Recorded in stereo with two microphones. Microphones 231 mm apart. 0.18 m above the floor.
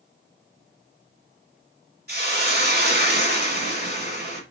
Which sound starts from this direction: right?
A hiss, at 2.1 s.